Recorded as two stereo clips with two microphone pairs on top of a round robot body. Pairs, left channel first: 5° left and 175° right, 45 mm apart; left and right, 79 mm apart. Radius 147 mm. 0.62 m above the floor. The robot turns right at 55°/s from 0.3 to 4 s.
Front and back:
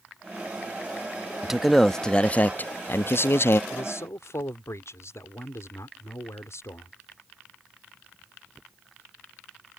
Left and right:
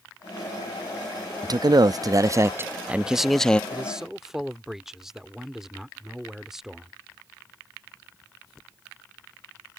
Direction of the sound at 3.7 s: 20° right.